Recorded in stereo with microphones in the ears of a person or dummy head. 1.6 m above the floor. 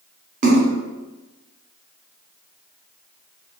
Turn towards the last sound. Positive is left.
turn(degrees=-40)  # may be behind; listen again after turning